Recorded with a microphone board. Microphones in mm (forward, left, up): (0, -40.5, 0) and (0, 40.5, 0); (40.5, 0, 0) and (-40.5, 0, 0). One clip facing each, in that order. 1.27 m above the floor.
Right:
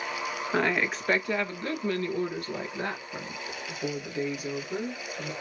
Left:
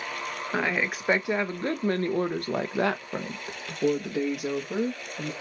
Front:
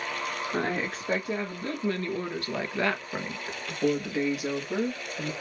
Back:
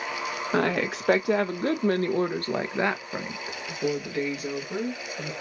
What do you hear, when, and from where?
0.5 s a woman speaking: straight behind, 1.3 m; by 5.3 s 65° left, 1.9 m